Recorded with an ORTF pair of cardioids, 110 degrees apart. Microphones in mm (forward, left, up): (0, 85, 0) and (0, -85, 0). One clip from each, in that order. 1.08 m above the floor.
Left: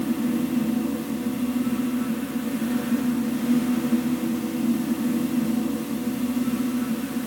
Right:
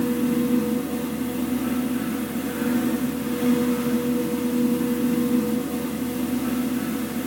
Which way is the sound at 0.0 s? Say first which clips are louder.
Right 3 dB; 50° right.